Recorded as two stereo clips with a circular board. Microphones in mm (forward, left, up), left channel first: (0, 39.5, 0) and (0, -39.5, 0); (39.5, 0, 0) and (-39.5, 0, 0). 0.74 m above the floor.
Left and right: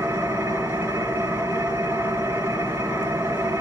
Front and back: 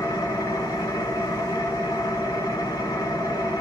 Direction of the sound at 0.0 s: 30° right.